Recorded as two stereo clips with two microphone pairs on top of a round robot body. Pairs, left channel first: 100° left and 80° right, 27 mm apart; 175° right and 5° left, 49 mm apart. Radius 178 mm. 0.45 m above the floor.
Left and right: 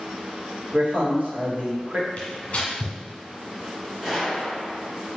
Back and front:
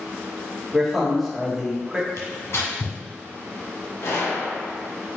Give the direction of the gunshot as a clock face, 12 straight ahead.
5 o'clock.